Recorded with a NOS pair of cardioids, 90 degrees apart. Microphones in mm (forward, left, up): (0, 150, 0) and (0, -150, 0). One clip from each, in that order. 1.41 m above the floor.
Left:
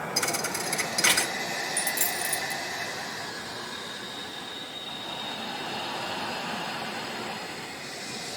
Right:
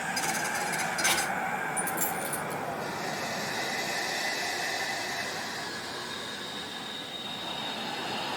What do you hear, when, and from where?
0.2 s a thud: 60° left, 2.5 m
1.8 s a dropped coin: 55° left, 3 m